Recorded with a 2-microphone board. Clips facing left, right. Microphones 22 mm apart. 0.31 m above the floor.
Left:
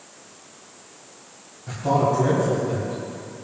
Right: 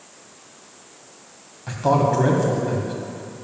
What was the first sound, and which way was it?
A man speaking, 50° right (ahead or behind).